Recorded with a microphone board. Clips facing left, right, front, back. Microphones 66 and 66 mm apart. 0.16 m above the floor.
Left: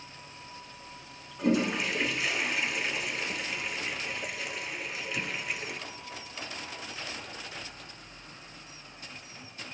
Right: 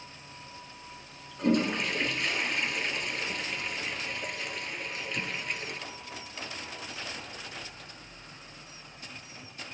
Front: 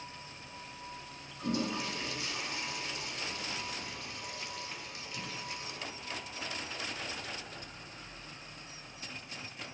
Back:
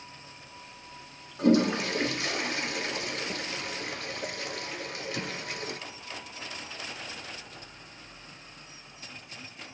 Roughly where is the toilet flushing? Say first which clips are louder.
Even, back 11 dB; behind.